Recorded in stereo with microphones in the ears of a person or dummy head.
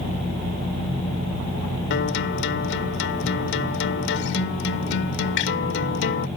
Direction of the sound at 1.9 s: 65° left (ahead or behind).